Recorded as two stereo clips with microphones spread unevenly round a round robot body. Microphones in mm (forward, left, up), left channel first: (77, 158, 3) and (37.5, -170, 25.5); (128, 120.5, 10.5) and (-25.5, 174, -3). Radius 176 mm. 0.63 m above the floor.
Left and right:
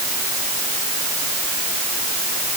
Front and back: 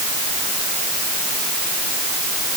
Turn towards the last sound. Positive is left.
No sound to turn to.